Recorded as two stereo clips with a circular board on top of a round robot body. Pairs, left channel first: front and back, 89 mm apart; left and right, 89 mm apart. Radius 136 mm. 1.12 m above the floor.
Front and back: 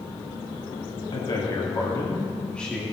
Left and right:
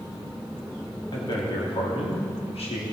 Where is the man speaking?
40° left, 2.5 m; by 2.8 s 85° left, 2.5 m.